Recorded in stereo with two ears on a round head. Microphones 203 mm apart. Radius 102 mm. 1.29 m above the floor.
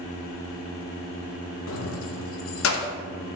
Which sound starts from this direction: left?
Keys jangling, at 1.7 s.